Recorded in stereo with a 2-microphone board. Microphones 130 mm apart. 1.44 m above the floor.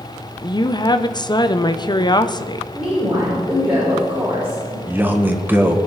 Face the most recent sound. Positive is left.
turn(degrees=-15)  # may be behind; listen again after turning